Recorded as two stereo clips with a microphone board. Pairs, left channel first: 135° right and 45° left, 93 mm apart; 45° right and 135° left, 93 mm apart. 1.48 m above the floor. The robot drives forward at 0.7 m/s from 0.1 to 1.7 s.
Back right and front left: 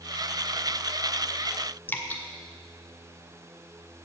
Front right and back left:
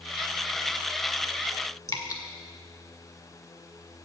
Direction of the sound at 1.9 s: 75° right.